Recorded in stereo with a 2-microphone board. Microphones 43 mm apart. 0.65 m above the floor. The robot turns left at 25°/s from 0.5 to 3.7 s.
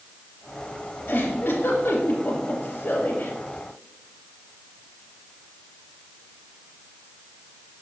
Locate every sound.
1.1 s a giggle: 55° left (ahead or behind), 2.5 m; by 3.3 s 50° left (ahead or behind), 2.5 m